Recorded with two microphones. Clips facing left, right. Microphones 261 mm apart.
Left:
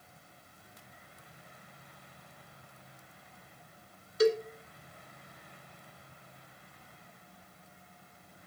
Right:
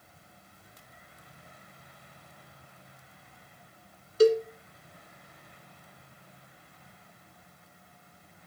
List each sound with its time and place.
4.2 s a cowbell: 30° right (ahead or behind), 1.3 m